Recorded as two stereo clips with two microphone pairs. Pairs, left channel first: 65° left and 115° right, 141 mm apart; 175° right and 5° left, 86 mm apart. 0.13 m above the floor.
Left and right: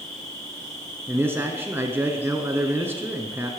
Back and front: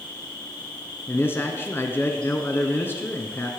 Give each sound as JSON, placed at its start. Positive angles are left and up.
{"t": 0.0, "sound": "an insect", "azimuth_deg": 105, "distance_m": 2.0}
{"t": 1.1, "sound": "a man speaking", "azimuth_deg": -165, "distance_m": 1.2}